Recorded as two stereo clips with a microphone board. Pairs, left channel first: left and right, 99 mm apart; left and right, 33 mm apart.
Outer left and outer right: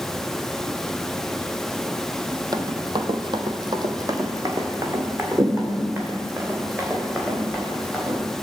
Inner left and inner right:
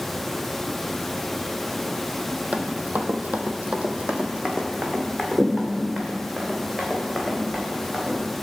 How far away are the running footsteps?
About 1.0 m.